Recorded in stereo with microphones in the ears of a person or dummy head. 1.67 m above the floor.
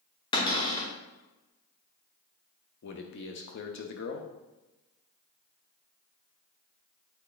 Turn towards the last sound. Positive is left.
turn(degrees=55)  # may be behind; listen again after turning